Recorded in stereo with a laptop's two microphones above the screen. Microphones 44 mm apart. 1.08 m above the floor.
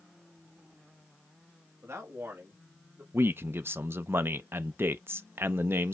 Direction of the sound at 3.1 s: 55° right (ahead or behind).